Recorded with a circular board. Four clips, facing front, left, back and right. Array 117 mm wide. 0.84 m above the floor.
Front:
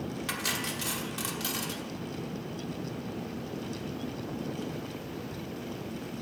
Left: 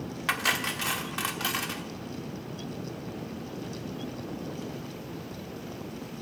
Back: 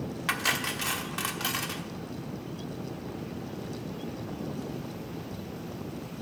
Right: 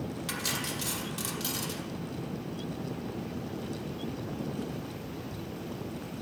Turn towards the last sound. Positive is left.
turn(degrees=120)